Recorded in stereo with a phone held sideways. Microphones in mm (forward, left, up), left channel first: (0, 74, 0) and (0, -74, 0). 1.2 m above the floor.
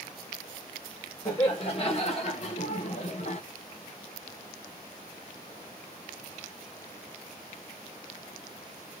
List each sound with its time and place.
1.2 s laughter: 40° left (ahead or behind), 2.0 m; by 3.4 s 45° left (ahead or behind), 0.9 m